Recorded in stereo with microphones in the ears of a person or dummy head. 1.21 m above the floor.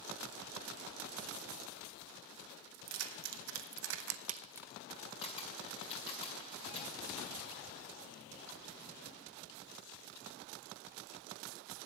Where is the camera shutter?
30° left (ahead or behind), 2 m.